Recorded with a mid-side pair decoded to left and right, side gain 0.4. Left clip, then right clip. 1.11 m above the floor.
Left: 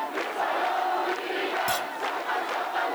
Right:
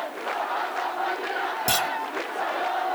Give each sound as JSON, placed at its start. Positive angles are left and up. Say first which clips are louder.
{"t": 1.7, "sound": "a clunk", "louder": "right 4 dB", "azimuth_deg": -65}